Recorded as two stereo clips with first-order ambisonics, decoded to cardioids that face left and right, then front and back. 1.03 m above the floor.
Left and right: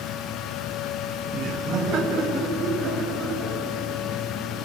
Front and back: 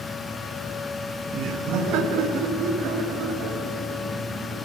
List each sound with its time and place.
1.3 s laughter: 135° right, 0.7 m; by 4.7 s 155° right, 2.5 m